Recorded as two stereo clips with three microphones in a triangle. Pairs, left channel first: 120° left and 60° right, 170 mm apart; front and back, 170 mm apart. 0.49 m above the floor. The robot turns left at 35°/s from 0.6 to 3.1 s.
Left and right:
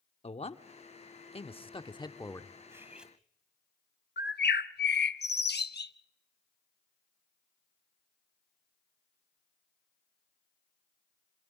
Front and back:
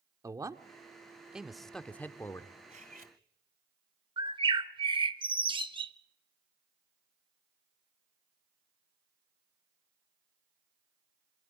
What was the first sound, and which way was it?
A man speaking, 125° left.